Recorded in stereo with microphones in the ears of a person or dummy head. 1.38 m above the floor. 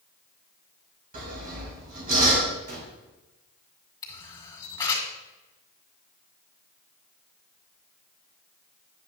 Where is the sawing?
45° right (ahead or behind), 2.5 m.